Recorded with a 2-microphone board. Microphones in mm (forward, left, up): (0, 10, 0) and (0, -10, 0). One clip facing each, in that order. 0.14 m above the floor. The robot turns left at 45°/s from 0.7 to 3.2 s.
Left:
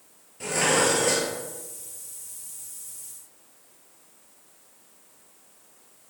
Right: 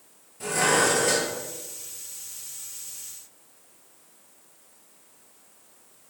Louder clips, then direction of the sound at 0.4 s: Right 1 dB; 25° left (ahead or behind).